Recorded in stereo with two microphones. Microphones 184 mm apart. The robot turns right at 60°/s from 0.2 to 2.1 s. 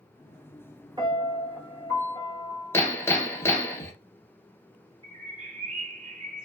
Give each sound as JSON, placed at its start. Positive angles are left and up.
{"t": 1.0, "sound": "a piano", "azimuth_deg": -35, "distance_m": 1.1}
{"t": 2.7, "sound": "hammering", "side_deg": 15, "distance_m": 0.6}
{"t": 5.0, "sound": "a bird", "side_deg": -35, "distance_m": 1.4}